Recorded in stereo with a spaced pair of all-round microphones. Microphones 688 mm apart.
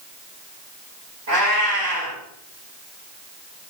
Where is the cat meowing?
75° right (ahead or behind), 6.5 m.